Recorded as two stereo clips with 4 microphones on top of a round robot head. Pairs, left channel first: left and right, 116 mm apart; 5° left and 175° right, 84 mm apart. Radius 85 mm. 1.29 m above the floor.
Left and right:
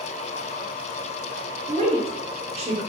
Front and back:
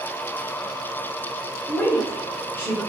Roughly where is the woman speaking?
Ahead right.